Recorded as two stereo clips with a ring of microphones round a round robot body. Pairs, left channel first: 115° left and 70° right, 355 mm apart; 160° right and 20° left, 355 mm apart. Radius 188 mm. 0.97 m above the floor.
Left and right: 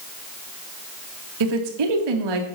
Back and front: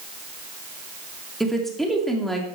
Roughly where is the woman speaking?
Right.